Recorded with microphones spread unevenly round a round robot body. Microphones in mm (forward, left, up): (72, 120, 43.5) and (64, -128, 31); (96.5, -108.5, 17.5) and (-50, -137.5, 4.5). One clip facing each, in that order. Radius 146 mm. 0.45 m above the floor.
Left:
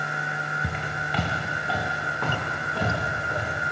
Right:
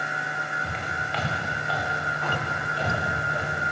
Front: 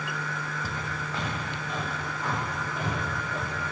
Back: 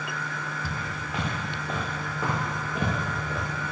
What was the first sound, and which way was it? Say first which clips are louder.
Footsteps: left 2 dB, even; 95° left.